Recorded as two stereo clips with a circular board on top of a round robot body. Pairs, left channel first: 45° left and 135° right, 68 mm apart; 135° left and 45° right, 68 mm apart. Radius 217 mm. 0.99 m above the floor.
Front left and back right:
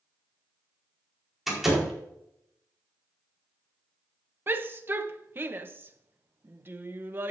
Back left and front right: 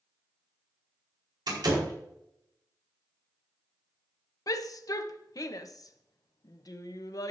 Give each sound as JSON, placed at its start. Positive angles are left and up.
{"t": 1.5, "sound": "a door slam", "azimuth_deg": -50, "distance_m": 4.5}
{"t": 4.5, "sound": "a shout", "azimuth_deg": 165, "distance_m": 1.1}